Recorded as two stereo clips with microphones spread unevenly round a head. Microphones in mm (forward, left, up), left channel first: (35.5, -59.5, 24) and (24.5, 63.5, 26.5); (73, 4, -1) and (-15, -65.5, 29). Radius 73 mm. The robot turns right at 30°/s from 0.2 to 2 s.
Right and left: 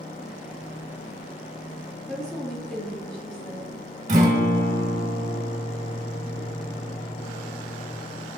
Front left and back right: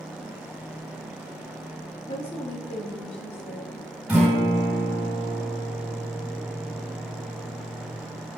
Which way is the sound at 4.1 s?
135° left.